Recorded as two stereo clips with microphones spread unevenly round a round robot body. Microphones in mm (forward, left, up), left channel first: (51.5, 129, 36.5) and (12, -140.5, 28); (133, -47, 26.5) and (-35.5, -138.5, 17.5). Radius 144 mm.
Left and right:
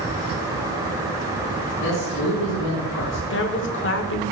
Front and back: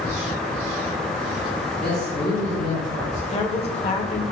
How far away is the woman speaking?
About 1.2 m.